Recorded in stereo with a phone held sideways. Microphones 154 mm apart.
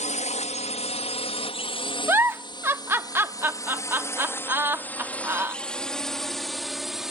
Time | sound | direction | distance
0.0 | a drone | 50° left (ahead or behind) | ?
2.1 | a giggle | 15° right (ahead or behind) | ?